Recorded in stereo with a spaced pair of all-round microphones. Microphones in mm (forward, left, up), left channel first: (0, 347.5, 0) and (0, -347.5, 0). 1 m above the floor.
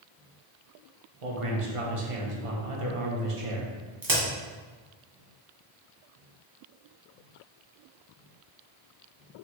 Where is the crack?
30° right (ahead or behind), 1.1 m.